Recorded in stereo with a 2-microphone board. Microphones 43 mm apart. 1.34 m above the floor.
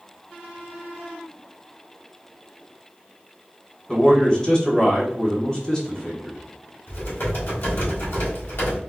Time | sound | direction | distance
3.9 | a man speaking | 15° left (ahead or behind) | 1.2 m
6.9 | typing on a keyboard | 85° left | 2.0 m